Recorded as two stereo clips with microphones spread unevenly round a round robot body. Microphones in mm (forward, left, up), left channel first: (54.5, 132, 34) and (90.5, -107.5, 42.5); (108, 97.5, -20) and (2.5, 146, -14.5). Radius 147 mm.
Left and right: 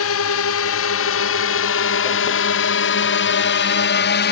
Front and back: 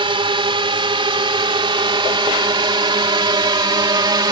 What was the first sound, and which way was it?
A drone, 120° left.